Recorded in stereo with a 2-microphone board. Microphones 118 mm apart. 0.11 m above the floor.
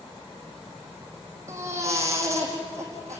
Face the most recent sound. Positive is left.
turn(degrees=-25)  # may be behind; listen again after turning